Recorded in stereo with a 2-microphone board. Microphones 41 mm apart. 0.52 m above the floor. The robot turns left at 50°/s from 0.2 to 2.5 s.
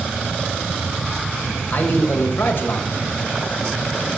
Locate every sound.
1.7 s a man speaking: 115° left, 2.5 m; by 3.1 s 75° left, 2.5 m